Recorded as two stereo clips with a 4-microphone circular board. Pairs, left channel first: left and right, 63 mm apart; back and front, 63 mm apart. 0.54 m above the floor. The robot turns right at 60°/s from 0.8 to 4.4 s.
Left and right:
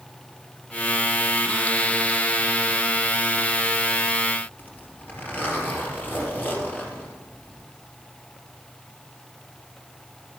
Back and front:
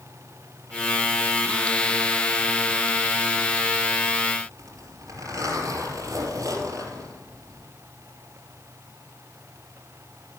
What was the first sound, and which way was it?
A zipper, 30° left.